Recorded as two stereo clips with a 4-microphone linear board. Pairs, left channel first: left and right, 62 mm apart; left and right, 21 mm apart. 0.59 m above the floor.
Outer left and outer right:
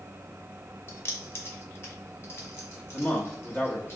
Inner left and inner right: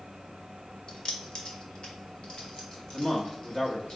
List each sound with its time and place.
0.9 s keys jangling: 40° left (ahead or behind), 0.7 m
2.9 s a man speaking: 30° left (ahead or behind), 1.0 m